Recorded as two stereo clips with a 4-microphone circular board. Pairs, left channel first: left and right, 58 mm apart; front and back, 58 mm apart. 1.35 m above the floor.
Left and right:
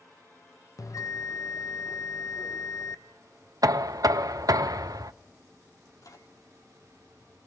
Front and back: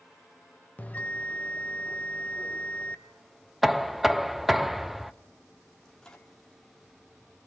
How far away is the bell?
About 1.0 m.